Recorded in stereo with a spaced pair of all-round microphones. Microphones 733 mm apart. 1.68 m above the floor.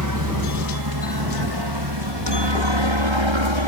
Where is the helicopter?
25° right (ahead or behind); by 3.7 s 40° right (ahead or behind).